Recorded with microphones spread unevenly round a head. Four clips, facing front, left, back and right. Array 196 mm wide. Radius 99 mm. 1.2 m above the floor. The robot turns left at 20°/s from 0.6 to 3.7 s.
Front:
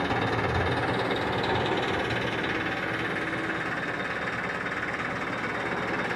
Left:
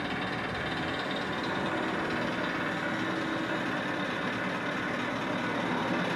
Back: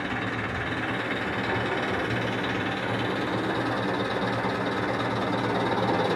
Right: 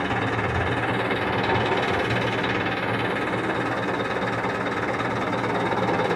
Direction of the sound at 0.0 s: 55° right.